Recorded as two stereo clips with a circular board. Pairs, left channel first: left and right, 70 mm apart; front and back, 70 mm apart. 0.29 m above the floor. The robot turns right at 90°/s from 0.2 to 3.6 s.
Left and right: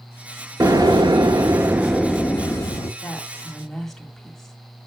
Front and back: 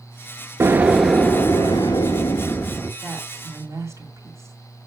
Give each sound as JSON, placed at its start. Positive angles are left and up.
{"t": 0.6, "sound": "an explosion", "azimuth_deg": -130, "distance_m": 0.9}
{"t": 3.0, "sound": "a woman speaking", "azimuth_deg": 120, "distance_m": 1.8}